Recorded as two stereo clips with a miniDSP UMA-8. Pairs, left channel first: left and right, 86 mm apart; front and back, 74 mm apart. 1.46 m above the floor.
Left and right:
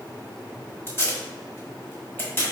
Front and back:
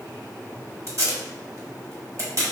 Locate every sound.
0.9 s tape being pulled: 150° left, 1.4 m